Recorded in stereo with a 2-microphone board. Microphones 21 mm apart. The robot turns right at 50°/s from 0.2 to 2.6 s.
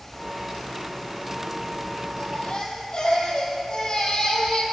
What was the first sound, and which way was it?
A baby crying, 65° left (ahead or behind).